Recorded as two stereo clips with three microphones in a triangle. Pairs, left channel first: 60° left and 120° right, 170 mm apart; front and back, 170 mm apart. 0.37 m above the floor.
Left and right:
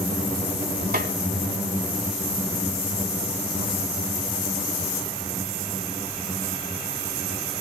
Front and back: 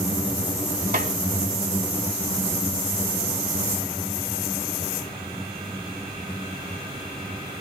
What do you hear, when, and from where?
0.9 s a snare drum: 145° right, 1.4 m